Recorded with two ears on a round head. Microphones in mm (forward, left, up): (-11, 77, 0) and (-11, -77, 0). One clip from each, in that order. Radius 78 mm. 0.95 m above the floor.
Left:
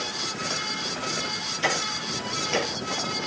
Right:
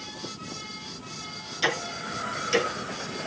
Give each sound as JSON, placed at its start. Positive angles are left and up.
{"t": 1.6, "sound": "ticking", "side_deg": -60, "distance_m": 3.5}